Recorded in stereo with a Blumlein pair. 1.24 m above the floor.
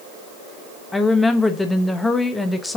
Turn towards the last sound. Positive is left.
turn(degrees=10)